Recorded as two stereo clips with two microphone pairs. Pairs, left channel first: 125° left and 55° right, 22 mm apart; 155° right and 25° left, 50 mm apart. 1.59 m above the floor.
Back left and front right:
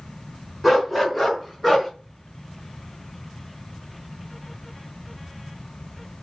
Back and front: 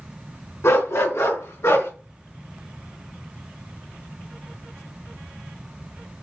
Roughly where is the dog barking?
Behind right.